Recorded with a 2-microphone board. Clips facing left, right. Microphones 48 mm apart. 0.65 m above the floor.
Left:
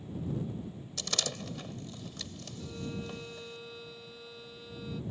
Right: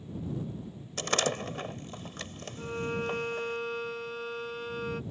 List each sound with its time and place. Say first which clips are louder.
1.0 s a door slam: right 8 dB; 45° right (ahead or behind)
2.6 s a violin: right 8 dB; 55° right (ahead or behind)